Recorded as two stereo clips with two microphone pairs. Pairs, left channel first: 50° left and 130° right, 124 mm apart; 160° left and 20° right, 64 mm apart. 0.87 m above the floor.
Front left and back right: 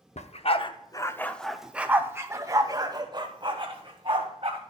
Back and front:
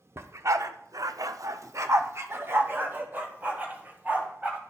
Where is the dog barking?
25° left, 0.7 m; by 4.6 s 85° right, 2 m.